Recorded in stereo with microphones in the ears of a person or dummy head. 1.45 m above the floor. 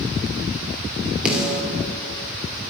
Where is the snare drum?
5° right (ahead or behind), 2.5 m.